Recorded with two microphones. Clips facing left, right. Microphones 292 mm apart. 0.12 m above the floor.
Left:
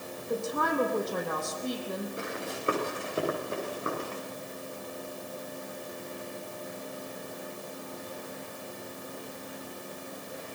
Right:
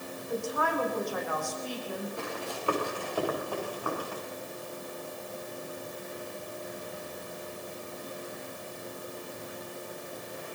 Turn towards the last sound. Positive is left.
turn(degrees=25)  # may be behind; listen again after turning